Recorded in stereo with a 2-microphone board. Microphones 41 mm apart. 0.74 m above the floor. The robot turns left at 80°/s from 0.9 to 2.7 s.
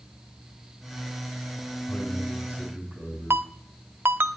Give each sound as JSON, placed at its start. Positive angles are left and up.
{"t": 1.9, "sound": "a man speaking", "azimuth_deg": 25, "distance_m": 6.5}
{"t": 3.3, "sound": "a ringtone", "side_deg": -65, "distance_m": 0.8}